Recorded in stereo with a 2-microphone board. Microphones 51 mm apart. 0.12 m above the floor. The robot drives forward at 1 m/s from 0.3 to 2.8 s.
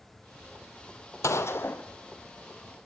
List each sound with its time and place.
1.2 s a gunshot: 70° left (ahead or behind), 0.7 m; by 1.8 s 40° left (ahead or behind), 1.0 m